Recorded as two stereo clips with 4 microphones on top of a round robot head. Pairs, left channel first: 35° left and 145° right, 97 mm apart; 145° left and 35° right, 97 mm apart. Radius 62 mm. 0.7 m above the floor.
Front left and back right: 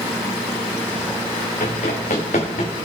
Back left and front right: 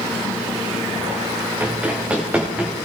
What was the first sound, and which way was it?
Running footsteps, 40° left.